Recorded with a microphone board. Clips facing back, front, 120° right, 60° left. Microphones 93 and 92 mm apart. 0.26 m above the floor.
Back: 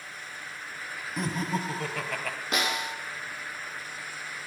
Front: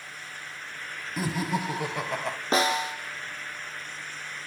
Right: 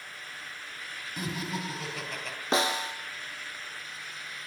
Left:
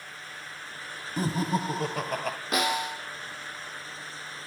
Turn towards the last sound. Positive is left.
turn(degrees=-60)